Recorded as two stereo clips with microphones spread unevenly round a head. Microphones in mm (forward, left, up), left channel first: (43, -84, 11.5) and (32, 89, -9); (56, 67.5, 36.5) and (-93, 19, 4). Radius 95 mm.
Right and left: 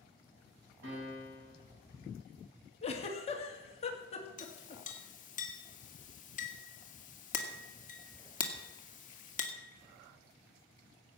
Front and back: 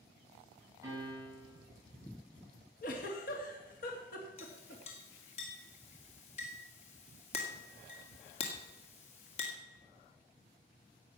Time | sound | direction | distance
0.8 | a piano | 130° left | 8 m
2.8 | a giggle | 30° right | 2.5 m
4.4 | a clink | 40° right | 2 m